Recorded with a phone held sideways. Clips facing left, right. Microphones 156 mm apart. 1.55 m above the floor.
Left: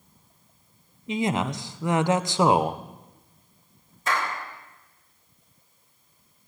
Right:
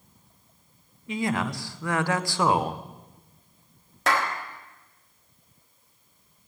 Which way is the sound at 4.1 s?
80° right.